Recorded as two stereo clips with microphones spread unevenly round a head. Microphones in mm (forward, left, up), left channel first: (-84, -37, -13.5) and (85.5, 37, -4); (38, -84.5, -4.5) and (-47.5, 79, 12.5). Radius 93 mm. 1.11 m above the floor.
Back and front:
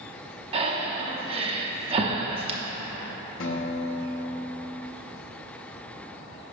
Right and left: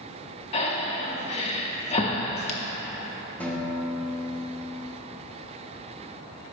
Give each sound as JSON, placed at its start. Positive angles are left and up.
{"t": 0.5, "sound": "breathing", "azimuth_deg": -15, "distance_m": 0.7}
{"t": 3.4, "sound": "a guitar", "azimuth_deg": -150, "distance_m": 0.8}